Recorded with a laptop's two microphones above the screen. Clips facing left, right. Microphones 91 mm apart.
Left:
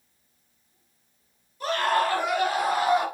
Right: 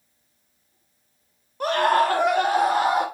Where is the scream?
60° right (ahead or behind), 1.4 m; by 3.0 s 70° right (ahead or behind), 3 m.